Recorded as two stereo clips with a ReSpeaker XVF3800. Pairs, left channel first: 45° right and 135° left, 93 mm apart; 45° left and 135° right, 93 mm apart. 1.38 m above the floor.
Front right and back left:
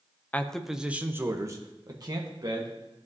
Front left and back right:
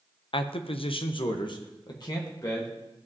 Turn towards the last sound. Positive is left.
turn(degrees=95)